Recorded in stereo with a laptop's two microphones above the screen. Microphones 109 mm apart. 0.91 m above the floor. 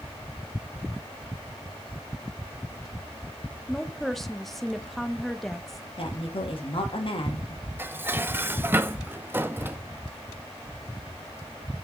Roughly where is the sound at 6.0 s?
Left.